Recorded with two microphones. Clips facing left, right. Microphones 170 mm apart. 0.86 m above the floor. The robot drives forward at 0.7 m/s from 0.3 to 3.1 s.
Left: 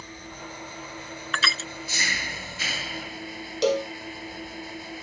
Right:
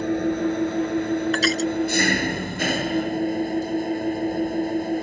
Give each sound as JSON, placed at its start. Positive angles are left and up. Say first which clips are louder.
{"t": 0.0, "sound": "an engine running", "louder": "right 20 dB", "side_deg": -65}
{"t": 1.3, "sound": "crushing", "louder": "right 13 dB", "side_deg": -40}
{"t": 3.6, "sound": "a cowbell", "louder": "left 1 dB", "side_deg": 85}